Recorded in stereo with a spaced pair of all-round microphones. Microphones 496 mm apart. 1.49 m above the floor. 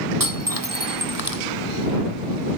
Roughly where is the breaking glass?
Right.